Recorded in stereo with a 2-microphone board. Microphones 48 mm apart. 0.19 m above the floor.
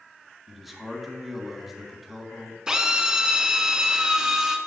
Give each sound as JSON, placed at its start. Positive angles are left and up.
{"t": 0.5, "sound": "a man speaking", "side_deg": 0, "distance_m": 1.9}
{"t": 2.7, "sound": "a drill", "side_deg": -15, "distance_m": 1.2}